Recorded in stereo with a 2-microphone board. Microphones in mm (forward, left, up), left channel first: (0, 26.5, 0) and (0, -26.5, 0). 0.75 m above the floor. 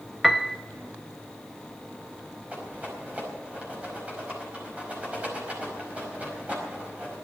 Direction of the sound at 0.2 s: Centre (ahead or behind).